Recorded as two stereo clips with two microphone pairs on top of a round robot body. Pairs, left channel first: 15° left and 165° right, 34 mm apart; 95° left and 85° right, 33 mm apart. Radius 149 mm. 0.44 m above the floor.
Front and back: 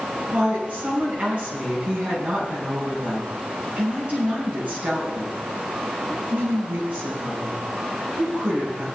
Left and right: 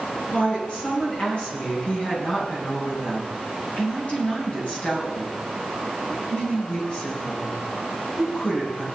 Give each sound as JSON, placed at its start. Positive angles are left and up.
{"t": 0.3, "sound": "a woman speaking", "azimuth_deg": 145, "distance_m": 6.0}